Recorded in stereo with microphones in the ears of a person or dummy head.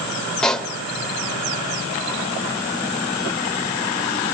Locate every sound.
0.4 s a pop: 5° left (ahead or behind), 2 m